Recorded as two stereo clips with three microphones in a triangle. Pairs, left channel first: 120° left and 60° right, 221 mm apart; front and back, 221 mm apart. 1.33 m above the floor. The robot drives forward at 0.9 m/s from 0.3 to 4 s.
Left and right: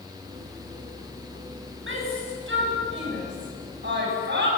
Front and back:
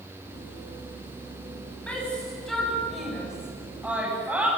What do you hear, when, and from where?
1.9 s a shout: 85° right, 9.5 m; by 4.5 s 95° right, 9.5 m